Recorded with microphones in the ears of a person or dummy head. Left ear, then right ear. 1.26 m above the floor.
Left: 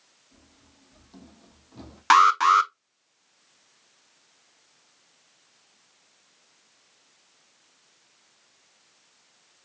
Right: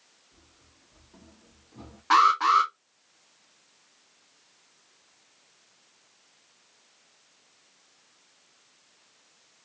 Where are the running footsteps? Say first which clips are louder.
Left 1 dB; 30° left (ahead or behind), 2.5 m; by 2.0 s 40° left (ahead or behind), 2 m.